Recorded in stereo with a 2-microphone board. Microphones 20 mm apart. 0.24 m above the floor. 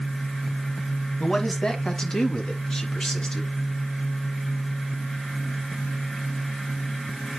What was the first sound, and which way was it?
A man speaking, 30° left (ahead or behind).